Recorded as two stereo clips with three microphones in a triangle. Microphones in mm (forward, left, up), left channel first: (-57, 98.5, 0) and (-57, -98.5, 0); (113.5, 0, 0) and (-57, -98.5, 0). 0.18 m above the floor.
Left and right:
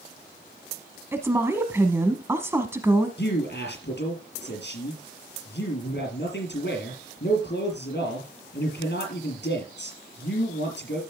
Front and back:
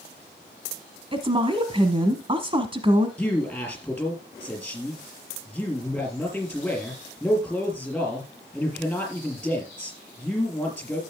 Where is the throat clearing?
No throat clearing in this recording.